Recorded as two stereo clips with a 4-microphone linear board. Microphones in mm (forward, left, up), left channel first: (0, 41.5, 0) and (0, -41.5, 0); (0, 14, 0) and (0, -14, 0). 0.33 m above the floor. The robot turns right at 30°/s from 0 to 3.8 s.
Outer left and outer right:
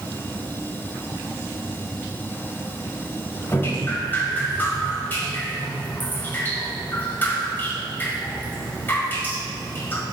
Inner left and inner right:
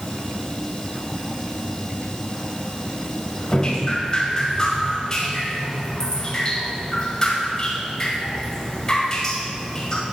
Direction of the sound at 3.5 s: 30° left (ahead or behind).